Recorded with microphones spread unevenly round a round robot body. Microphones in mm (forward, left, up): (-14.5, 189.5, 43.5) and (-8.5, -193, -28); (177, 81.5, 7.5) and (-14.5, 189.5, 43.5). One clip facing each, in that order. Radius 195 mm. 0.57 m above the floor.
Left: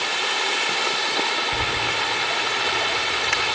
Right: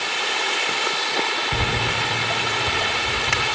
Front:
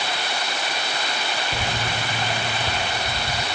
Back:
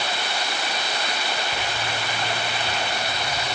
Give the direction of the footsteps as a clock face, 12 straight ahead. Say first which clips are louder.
Right 2 dB, front 2 dB; 3 o'clock.